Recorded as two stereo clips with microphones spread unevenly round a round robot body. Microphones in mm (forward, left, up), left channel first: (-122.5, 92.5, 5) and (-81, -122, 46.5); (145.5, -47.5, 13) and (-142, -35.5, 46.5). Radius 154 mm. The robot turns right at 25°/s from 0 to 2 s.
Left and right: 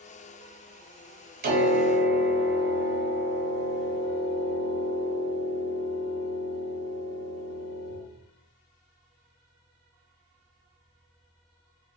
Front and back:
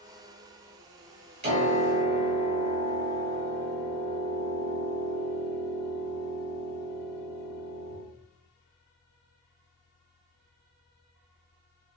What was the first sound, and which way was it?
A piano, 120° right.